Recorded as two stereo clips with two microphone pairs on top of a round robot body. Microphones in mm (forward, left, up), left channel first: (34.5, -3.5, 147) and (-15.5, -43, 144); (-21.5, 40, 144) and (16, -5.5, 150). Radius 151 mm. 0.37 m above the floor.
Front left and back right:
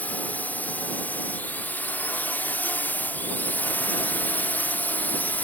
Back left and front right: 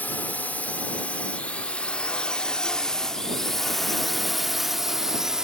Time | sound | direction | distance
0.0 | a drone | 95° left | ?